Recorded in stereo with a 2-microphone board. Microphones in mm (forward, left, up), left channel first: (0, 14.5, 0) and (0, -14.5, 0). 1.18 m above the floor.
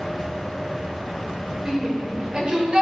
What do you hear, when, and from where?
1.6 s a shout: 30° right (ahead or behind), 4 m; by 2.8 s 40° right (ahead or behind), 4.5 m